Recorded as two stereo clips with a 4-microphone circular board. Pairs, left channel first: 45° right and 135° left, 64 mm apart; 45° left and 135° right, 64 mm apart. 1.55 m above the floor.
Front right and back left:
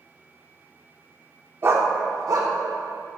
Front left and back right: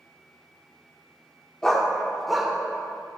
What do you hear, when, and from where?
1.6 s a dog barking: 120° left, 1.3 m; by 3.2 s 145° left, 2.5 m